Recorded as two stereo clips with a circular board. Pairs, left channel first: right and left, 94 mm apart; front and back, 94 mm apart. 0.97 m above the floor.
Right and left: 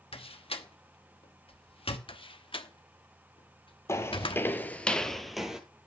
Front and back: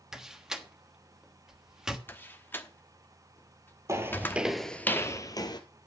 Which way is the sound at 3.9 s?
140° right.